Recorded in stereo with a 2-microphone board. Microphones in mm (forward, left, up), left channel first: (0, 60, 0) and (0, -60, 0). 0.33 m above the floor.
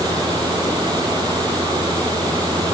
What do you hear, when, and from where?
Only background noise.